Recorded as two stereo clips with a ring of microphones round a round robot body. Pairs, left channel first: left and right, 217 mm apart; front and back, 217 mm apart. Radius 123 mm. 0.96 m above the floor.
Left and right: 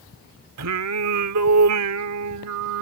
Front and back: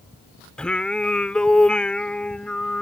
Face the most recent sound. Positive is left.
turn(degrees=-85)